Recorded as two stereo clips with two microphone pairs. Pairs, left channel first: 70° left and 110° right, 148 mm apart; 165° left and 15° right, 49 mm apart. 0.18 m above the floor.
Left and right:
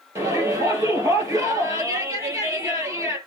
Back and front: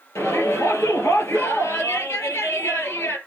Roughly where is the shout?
Behind.